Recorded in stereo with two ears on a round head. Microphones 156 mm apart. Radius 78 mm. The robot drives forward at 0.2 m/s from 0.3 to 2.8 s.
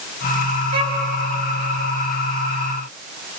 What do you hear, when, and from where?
0.7 s a violin: 80° right, 3.5 m